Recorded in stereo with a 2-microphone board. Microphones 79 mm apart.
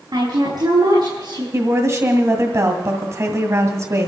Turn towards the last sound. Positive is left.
turn(degrees=-40)  # may be behind; listen again after turning